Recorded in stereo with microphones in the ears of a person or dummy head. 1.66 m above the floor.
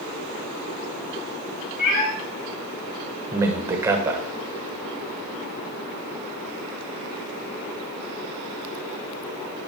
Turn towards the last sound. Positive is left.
turn(degrees=-15)  # may be behind; listen again after turning